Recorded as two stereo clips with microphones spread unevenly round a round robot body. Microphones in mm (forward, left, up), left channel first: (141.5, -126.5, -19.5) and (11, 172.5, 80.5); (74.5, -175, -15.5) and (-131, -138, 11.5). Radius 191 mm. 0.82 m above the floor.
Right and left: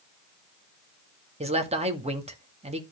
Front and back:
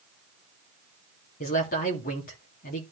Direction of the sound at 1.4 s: 35° left.